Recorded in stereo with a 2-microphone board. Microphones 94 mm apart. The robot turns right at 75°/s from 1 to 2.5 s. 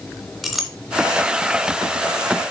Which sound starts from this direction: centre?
A clink, at 0.4 s.